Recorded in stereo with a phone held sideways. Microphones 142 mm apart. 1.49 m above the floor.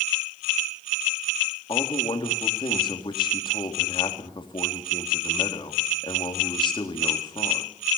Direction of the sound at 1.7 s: 35° left (ahead or behind).